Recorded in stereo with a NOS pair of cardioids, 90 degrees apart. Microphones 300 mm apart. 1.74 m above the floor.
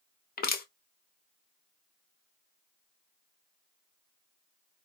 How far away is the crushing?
About 0.7 m.